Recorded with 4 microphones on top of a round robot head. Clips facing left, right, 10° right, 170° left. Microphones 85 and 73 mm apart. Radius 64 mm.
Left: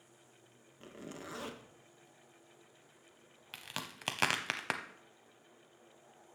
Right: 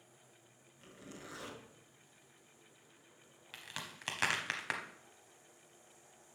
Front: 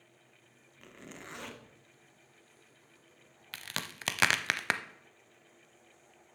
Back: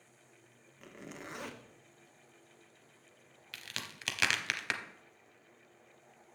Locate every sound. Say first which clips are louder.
0.8 s a zipper: left 5 dB, back 2 dB; 95° left, 1.4 m
3.5 s a crack: left 3 dB, front 5 dB; 35° left, 0.7 m